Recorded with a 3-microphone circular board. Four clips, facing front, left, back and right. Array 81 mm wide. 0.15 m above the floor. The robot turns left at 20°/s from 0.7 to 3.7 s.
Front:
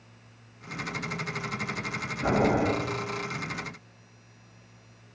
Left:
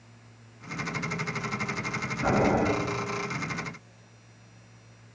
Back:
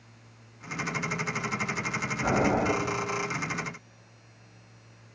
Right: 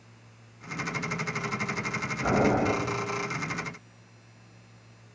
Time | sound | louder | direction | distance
2.2 | boiling | even, front 1 dB | 100° left | 1.6 m